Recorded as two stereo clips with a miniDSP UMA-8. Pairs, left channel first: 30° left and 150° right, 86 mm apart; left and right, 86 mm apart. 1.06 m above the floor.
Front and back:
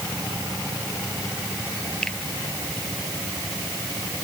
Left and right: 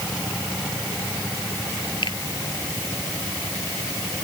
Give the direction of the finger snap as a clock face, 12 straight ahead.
8 o'clock.